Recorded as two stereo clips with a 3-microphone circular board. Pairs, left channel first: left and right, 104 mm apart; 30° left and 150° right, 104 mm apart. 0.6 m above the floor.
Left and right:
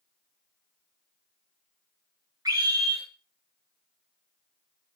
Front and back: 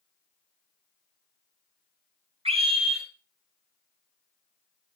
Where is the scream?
140° right, 9 m.